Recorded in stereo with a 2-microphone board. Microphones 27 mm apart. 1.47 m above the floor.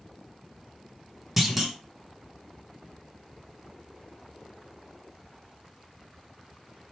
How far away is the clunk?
About 0.8 m.